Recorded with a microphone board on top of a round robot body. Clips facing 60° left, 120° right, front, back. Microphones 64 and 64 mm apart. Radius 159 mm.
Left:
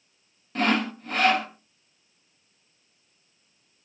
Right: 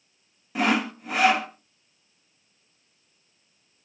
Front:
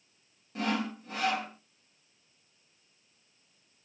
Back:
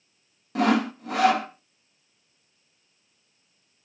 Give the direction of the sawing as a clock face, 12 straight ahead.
7 o'clock.